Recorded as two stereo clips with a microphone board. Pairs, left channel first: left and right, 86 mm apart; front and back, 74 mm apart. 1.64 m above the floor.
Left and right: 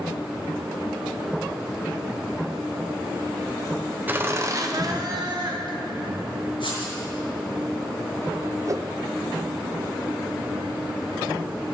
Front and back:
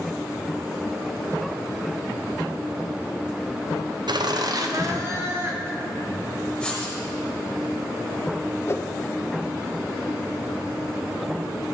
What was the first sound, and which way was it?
Laughter, 160° right.